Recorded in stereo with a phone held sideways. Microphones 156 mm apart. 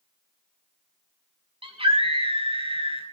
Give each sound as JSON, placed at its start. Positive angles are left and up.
{"t": 1.6, "sound": "a scream", "side_deg": -40, "distance_m": 5.0}